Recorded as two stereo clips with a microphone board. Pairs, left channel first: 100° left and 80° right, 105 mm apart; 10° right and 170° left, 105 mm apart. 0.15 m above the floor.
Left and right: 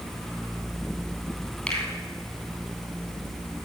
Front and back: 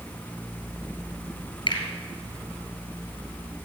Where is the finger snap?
20° left, 2.5 m.